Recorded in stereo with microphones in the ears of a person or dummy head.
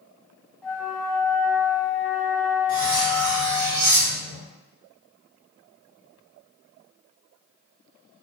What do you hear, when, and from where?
0.6 s a flute: 5° left (ahead or behind), 0.6 m
2.7 s cutlery clinking: 45° right (ahead or behind), 1.7 m